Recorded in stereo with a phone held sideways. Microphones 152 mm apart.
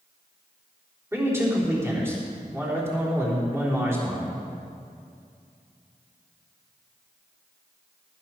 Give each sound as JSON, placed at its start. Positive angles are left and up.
{"t": 1.1, "sound": "a man speaking", "side_deg": -15, "distance_m": 3.5}